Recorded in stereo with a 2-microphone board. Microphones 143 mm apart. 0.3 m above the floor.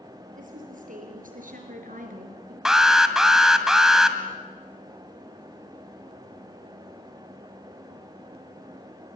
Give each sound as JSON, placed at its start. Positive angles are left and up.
{"t": 0.3, "sound": "a woman speaking", "side_deg": -70, "distance_m": 7.0}
{"t": 2.6, "sound": "an alarm", "side_deg": -5, "distance_m": 1.8}